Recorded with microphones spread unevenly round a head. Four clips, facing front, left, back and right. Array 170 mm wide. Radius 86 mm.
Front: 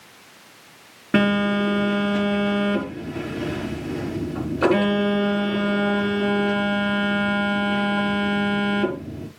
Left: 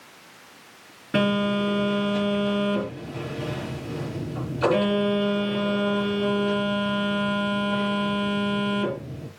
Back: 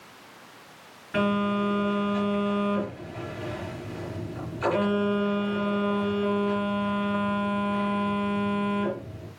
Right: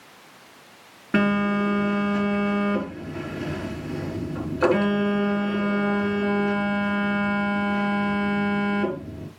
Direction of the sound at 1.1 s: 10° right.